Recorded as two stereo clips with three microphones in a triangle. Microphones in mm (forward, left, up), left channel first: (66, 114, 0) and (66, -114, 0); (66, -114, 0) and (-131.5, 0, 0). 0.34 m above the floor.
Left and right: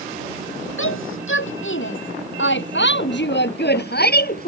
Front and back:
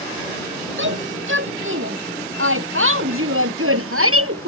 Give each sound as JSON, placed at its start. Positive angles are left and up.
{"t": 0.8, "sound": "a shout", "azimuth_deg": 115}